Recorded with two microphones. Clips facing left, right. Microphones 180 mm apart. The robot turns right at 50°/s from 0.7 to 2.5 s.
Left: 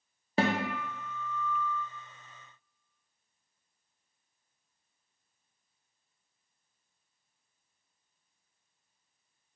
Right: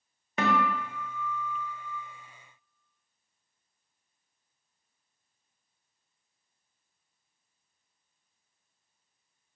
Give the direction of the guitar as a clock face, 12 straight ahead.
11 o'clock.